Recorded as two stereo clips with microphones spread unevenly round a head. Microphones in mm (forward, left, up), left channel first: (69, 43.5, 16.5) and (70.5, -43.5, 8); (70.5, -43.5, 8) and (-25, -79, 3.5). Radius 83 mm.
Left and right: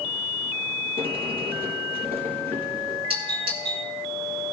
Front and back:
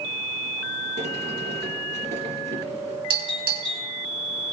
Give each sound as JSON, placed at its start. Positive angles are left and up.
{"t": 1.0, "sound": "a sliding door", "azimuth_deg": -145, "distance_m": 4.0}
{"t": 3.1, "sound": "a doorbell", "azimuth_deg": -130, "distance_m": 4.0}